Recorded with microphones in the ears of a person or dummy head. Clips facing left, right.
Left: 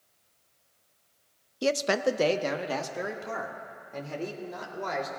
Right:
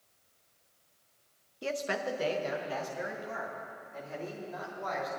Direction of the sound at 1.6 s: 50° left (ahead or behind).